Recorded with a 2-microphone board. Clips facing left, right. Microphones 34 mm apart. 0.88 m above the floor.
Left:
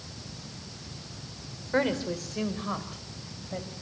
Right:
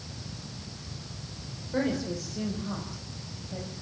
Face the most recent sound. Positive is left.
turn(degrees=60)  # may be behind; listen again after turning